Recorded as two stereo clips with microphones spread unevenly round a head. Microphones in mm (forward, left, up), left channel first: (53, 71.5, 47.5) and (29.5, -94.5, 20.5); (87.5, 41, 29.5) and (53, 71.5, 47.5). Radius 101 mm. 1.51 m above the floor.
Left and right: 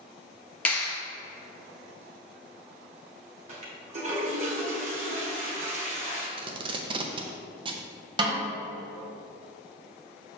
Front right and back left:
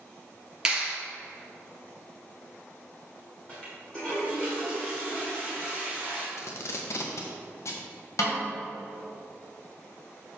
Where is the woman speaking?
No woman speaking in this recording.